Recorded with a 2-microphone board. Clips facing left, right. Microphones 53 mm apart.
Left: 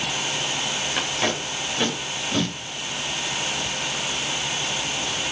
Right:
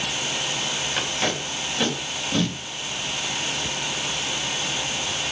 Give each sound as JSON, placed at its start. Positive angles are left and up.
{"t": 1.0, "sound": "tape being pulled", "side_deg": 5, "distance_m": 3.0}